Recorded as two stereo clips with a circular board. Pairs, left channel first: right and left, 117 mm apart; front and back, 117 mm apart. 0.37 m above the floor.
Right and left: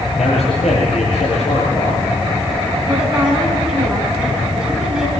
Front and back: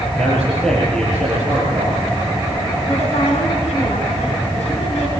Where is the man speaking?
85° right, 7 m.